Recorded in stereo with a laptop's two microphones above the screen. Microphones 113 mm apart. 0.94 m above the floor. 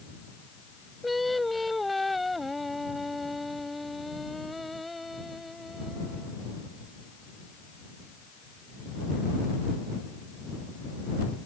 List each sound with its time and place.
1.0 s singing: centre (ahead or behind)